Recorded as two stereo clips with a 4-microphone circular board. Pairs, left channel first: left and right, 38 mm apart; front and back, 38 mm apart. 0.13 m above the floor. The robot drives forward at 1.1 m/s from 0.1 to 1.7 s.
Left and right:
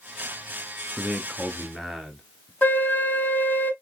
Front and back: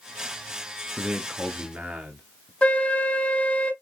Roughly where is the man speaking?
Behind left.